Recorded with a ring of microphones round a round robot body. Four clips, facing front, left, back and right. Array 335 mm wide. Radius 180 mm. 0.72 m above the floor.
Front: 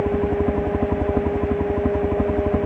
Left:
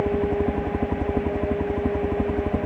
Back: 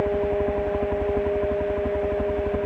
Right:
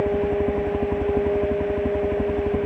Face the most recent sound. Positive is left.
turn(degrees=5)